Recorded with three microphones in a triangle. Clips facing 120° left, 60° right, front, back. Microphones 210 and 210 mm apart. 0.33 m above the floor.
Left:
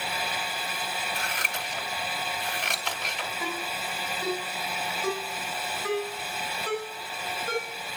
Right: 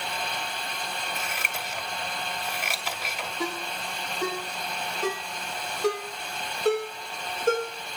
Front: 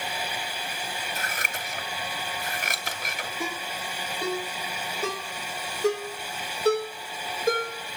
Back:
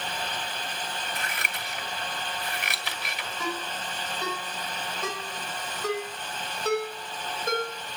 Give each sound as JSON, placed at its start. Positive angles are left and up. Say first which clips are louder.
{"t": 1.1, "sound": "scissors", "louder": "even, front 1 dB", "azimuth_deg": 20, "distance_m": 2.5}
{"t": 3.4, "sound": "a ringtone", "louder": "right 3 dB, back 2 dB", "azimuth_deg": -60, "distance_m": 8.5}